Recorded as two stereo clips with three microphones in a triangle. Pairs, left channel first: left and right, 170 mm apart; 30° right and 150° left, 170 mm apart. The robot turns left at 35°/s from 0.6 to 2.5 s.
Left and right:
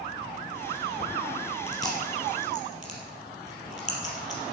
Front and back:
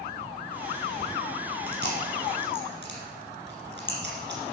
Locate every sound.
1.7 s chewing: 165° left, 3.5 m; by 4.4 s 140° left, 3.5 m